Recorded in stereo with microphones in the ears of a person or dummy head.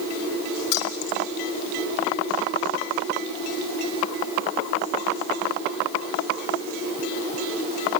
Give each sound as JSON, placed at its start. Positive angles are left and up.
{"t": 0.7, "sound": "keys jangling", "side_deg": 60, "distance_m": 3.5}